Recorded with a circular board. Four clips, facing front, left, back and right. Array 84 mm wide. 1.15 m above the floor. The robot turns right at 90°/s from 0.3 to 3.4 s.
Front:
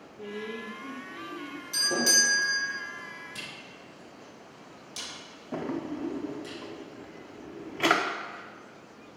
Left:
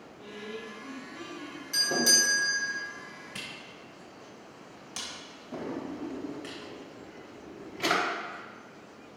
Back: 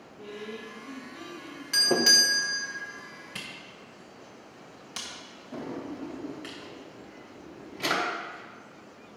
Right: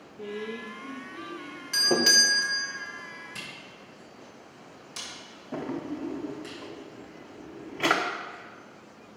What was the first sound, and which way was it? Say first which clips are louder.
A woman speaking: right 6 dB, front 3 dB; 85° right.